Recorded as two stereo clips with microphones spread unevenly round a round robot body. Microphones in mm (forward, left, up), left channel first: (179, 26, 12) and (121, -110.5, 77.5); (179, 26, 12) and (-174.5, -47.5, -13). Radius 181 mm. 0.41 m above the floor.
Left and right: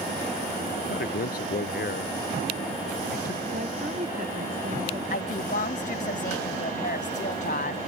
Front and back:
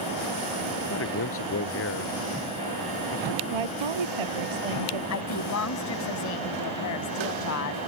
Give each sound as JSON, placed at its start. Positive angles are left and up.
{"t": 0.8, "sound": "a man speaking", "azimuth_deg": 70}
{"t": 3.5, "sound": "a woman speaking", "azimuth_deg": -175}
{"t": 5.1, "sound": "a woman speaking", "azimuth_deg": 60}